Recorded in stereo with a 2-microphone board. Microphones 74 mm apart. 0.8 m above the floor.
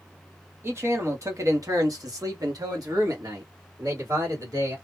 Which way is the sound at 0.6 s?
30° right (ahead or behind).